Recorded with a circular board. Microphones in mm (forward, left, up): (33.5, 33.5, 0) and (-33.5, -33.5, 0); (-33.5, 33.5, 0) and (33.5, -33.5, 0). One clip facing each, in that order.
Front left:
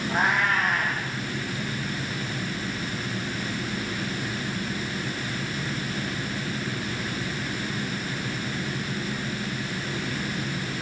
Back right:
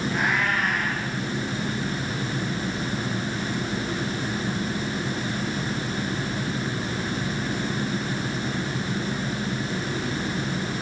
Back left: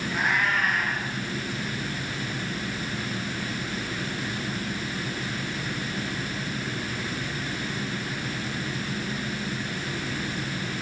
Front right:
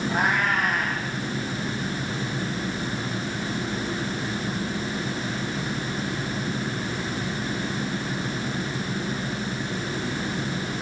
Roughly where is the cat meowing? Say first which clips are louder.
Front left 3 dB, front right 1 dB; ahead.